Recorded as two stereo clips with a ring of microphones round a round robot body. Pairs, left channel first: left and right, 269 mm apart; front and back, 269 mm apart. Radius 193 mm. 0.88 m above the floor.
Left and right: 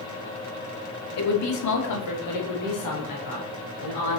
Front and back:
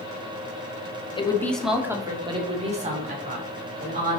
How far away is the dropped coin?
No dropped coin in this recording.